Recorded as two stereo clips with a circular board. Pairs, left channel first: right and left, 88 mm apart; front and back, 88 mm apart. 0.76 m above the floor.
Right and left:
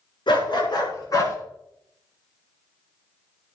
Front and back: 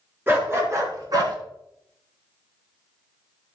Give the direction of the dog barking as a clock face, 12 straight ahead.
4 o'clock.